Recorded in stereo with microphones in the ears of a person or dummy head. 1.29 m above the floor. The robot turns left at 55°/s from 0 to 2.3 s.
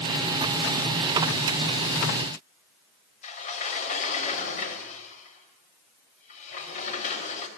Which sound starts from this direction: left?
A sliding door, at 3.2 s.